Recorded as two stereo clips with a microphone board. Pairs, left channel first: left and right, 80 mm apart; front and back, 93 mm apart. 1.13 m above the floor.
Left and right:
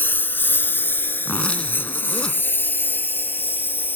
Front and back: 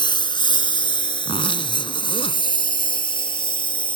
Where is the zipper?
15° left.